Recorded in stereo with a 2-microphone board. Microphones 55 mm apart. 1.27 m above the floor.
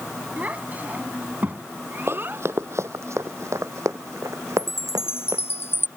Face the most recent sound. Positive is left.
turn(degrees=50)  # may be behind; listen again after turning